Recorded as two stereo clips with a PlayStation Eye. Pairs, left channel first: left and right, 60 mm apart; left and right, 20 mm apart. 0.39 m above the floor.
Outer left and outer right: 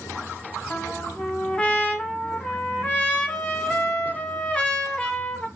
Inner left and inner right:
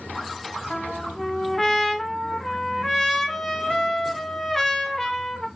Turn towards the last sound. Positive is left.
turn(degrees=20)  # may be behind; listen again after turning